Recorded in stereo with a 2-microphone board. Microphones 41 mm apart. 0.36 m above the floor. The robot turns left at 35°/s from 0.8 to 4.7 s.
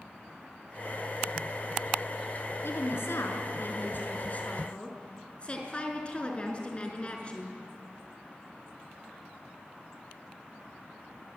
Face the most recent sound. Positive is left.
turn(degrees=25)